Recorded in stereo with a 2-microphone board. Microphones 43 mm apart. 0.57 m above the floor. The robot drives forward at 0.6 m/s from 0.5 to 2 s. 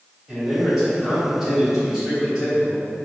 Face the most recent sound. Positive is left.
turn(degrees=-5)  # may be behind; listen again after turning